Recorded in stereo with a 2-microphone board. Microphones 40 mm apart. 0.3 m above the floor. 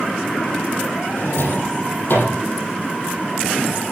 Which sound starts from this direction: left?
A drawer, at 1.2 s.